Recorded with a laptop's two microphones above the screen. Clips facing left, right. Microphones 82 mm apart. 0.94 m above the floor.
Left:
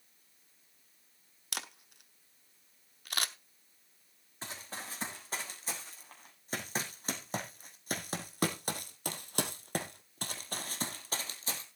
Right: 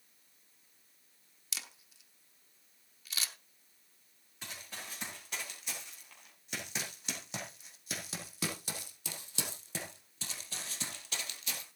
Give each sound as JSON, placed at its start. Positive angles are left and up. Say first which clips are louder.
{"t": 1.5, "sound": "a camera shutter", "louder": "left 6 dB", "side_deg": 60, "distance_m": 0.8}
{"t": 4.4, "sound": "running footsteps", "louder": "left 3 dB", "side_deg": 35, "distance_m": 4.0}